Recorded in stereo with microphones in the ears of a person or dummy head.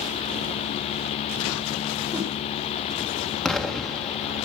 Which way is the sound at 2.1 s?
10° right (ahead or behind).